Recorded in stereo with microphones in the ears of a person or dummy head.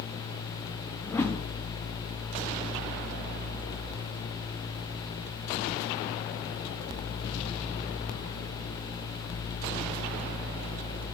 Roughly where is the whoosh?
Centre.